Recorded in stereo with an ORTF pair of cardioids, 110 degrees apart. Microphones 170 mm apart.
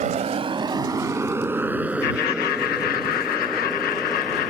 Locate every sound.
0.0 s a motorcycle: 50° right; by 4.5 s straight ahead
2.0 s laughter: 65° left